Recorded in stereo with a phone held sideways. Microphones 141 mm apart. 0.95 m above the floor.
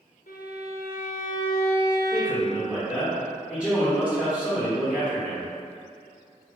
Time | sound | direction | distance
0.3 | a violin | 75° left (ahead or behind) | 0.6 m
2.1 | a man speaking | 10° left (ahead or behind) | 0.6 m